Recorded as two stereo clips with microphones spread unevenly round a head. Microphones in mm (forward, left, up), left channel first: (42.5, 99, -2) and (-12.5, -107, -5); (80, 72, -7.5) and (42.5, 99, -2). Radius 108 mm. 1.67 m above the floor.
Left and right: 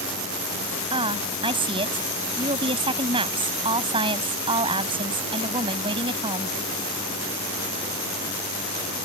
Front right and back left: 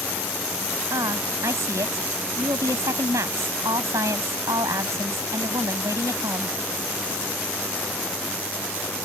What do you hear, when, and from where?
0.9 s a woman speaking: 175° right